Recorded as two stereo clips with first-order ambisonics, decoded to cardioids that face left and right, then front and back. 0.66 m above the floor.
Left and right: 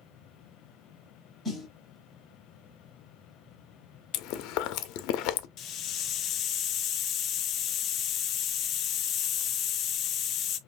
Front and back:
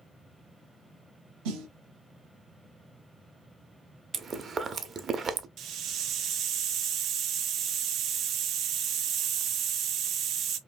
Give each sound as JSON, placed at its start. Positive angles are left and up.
{"t": 1.4, "sound": "a snare drum", "azimuth_deg": 175, "distance_m": 1.2}
{"t": 4.1, "sound": "chewing", "azimuth_deg": 115, "distance_m": 0.5}
{"t": 5.6, "sound": "a hiss", "azimuth_deg": 140, "distance_m": 0.6}